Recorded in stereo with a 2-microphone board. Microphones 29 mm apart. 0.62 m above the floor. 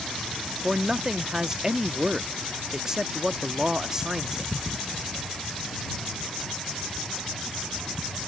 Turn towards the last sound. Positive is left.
turn(degrees=-20)  # may be behind; listen again after turning